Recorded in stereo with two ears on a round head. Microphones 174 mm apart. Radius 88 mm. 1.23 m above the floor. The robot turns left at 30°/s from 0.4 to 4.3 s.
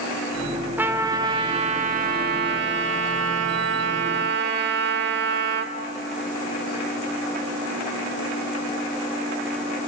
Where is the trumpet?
10° right, 1.6 m; by 5.7 s 115° right, 1.6 m.